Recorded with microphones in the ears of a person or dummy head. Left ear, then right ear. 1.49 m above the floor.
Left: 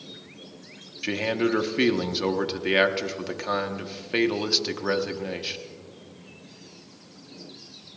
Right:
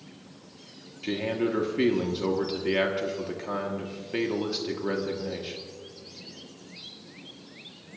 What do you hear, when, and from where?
1.0 s a man speaking: 35° left (ahead or behind), 1.3 m